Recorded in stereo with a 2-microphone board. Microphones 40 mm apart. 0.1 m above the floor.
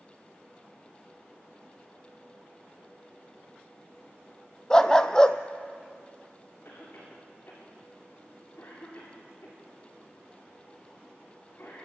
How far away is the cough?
About 8.5 m.